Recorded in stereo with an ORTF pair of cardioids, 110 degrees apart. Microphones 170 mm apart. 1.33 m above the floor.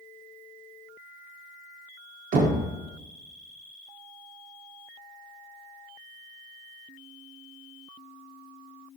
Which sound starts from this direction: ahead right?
Knocking, at 2.3 s.